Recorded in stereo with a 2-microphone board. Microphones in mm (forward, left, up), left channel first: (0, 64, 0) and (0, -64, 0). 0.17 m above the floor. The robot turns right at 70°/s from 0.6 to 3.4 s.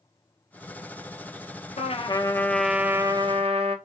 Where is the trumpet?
120° left, 0.5 m; by 3.8 s 130° right, 0.5 m.